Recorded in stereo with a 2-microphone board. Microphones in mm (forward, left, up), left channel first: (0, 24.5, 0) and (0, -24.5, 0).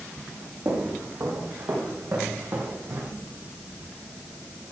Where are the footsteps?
75° right (ahead or behind), 4.5 m; by 3.1 s 55° right (ahead or behind), 5 m.